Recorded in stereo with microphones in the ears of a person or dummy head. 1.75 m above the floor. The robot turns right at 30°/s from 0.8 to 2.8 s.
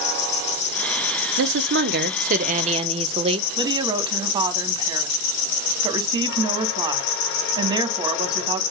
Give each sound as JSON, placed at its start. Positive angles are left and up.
{"t": 0.0, "sound": "an insect", "azimuth_deg": 30, "distance_m": 2.0}
{"t": 1.4, "sound": "a woman speaking", "azimuth_deg": -80, "distance_m": 1.5}
{"t": 3.6, "sound": "a woman speaking", "side_deg": -25, "distance_m": 2.5}